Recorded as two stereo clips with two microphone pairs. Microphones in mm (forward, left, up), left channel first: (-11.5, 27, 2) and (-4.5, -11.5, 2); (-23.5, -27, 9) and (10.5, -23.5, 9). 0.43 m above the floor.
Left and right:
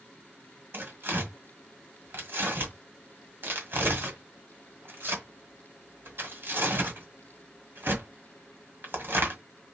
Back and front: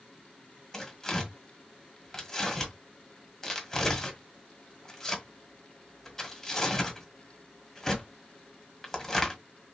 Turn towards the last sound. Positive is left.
turn(degrees=-100)